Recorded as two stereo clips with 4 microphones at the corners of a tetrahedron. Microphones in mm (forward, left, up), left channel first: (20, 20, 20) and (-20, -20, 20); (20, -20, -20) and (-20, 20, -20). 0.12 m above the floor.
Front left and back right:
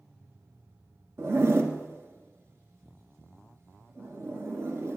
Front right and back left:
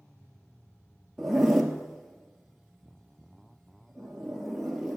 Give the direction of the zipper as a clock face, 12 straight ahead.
5 o'clock.